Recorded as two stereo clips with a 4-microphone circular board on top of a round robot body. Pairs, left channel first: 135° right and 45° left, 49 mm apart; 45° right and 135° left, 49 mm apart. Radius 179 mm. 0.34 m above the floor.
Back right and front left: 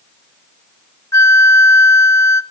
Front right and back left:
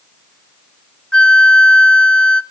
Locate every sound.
1.1 s a flute: 115° right, 0.6 m